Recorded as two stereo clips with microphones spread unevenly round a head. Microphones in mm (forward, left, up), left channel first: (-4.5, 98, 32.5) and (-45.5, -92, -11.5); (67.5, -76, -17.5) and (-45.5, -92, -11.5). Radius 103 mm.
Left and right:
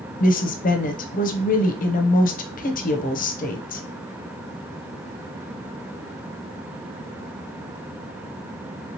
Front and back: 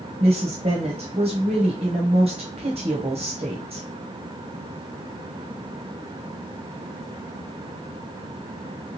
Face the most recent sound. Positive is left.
turn(degrees=125)